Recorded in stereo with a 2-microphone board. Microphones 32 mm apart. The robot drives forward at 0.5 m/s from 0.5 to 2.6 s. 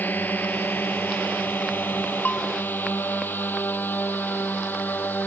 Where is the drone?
65° left (ahead or behind); by 5.3 s 70° left (ahead or behind).